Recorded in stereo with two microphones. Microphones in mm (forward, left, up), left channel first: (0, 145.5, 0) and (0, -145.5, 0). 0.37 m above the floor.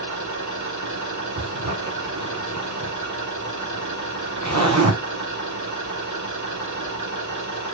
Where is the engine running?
85° right, 7 m.